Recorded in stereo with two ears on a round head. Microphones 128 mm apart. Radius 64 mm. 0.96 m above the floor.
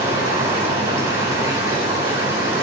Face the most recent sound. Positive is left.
turn(degrees=-20)  # may be behind; listen again after turning